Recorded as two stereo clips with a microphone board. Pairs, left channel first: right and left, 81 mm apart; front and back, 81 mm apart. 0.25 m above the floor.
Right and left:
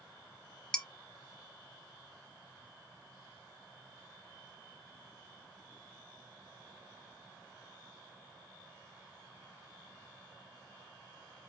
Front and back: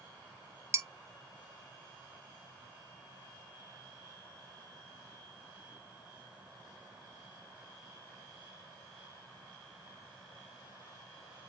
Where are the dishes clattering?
165° right, 1.0 m.